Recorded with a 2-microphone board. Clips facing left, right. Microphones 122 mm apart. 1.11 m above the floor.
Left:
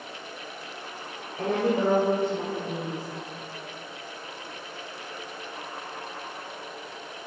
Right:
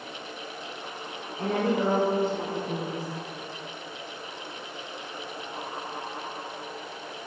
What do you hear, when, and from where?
1.4 s a woman speaking: 65° left (ahead or behind), 4 m; by 3.0 s 70° left (ahead or behind), 6.5 m